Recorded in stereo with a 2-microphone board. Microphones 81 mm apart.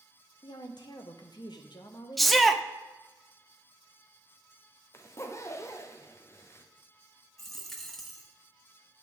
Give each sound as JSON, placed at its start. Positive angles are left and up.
{"t": 0.4, "sound": "a woman speaking", "side_deg": 60, "distance_m": 0.8}
{"t": 2.2, "sound": "a shout", "side_deg": 0, "distance_m": 0.5}
{"t": 4.9, "sound": "a zipper", "side_deg": 35, "distance_m": 0.6}
{"t": 7.4, "sound": "a dropped coin", "side_deg": 0, "distance_m": 0.9}